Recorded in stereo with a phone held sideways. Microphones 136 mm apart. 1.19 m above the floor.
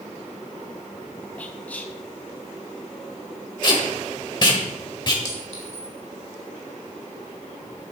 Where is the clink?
55° left (ahead or behind), 2.5 m.